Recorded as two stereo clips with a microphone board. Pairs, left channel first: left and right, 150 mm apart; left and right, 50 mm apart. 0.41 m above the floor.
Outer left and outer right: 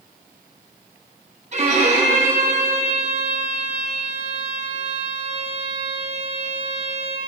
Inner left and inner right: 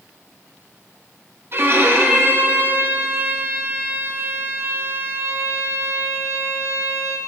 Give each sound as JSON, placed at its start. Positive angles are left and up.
{"t": 1.5, "sound": "a violin", "side_deg": -45, "distance_m": 1.9}